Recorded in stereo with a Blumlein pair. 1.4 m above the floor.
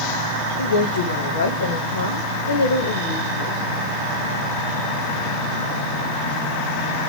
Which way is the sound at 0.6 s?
65° left.